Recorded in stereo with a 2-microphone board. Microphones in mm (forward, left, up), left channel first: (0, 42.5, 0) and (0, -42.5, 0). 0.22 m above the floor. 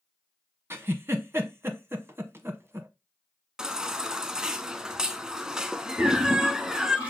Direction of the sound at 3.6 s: 10° right (ahead or behind).